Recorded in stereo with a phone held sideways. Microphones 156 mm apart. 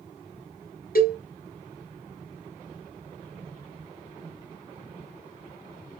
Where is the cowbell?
70° left (ahead or behind), 2 m.